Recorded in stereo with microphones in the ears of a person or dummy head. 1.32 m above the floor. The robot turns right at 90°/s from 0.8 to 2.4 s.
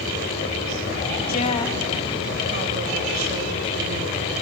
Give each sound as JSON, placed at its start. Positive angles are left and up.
{"t": 1.3, "sound": "a woman speaking", "azimuth_deg": 130, "distance_m": 2.0}